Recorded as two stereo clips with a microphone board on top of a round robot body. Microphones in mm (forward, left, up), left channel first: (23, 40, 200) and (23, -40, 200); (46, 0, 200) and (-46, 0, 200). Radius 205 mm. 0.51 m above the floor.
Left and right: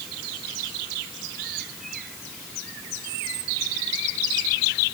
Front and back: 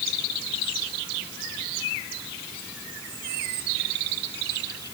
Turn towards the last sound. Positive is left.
No sound to turn to.